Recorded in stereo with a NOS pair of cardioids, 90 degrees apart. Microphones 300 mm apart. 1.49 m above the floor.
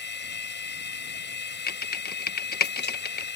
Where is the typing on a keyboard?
30° left.